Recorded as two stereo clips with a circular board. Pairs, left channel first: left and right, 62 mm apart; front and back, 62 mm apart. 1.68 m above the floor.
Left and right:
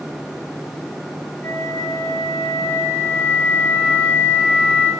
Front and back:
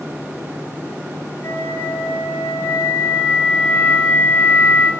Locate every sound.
1.4 s a flute: 40° left, 3.5 m